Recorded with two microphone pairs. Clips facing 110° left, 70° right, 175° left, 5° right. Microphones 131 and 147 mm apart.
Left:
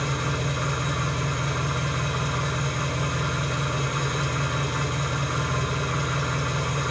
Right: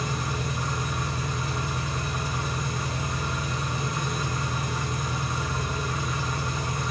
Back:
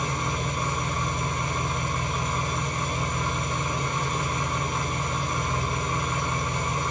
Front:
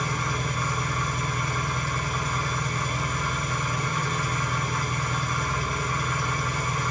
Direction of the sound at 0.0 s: 105° left.